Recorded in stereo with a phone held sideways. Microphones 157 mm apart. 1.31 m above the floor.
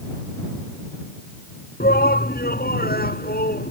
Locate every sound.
1.8 s a shout: 85° left; by 3.7 s 80° left